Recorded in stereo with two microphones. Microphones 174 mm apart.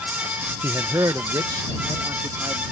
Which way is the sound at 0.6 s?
15° right (ahead or behind).